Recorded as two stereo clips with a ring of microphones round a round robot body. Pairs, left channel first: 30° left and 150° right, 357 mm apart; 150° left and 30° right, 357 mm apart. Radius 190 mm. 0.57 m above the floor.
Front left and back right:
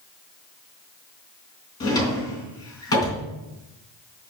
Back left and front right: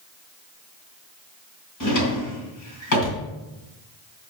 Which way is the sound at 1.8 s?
110° left.